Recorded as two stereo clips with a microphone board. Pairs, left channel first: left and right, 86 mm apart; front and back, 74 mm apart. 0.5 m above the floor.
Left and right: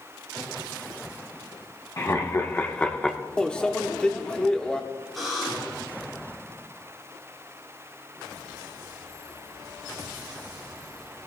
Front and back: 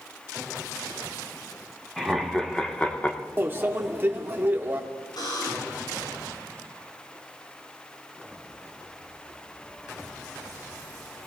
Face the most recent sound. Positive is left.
turn(degrees=0)